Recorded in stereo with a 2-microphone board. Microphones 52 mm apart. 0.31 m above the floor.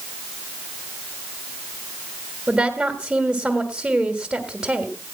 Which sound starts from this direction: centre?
A woman speaking, at 2.5 s.